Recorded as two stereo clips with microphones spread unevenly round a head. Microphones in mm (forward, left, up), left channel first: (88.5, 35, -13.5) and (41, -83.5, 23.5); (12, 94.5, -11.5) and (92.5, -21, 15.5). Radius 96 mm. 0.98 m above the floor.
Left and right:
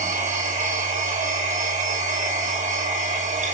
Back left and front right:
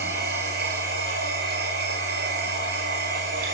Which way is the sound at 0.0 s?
90° right.